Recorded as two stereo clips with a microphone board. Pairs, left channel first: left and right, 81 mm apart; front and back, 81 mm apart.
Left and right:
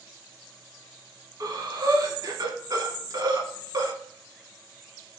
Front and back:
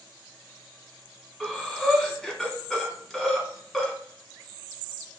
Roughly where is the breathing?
Right.